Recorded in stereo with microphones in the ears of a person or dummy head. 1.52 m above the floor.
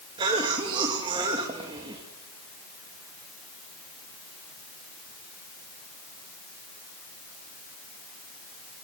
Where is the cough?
30° right (ahead or behind), 2.5 m.